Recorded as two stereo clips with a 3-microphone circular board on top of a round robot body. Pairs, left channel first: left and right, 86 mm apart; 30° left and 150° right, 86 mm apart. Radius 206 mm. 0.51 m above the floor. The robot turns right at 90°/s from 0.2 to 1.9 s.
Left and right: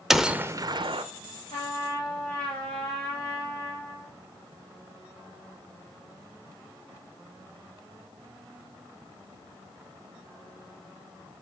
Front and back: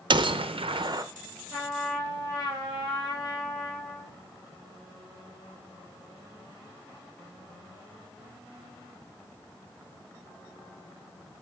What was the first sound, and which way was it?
A gunshot, 175° right.